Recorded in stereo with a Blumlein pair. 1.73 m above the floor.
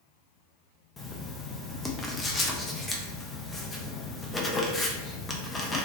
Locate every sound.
1.0 s writing: 10° left, 0.6 m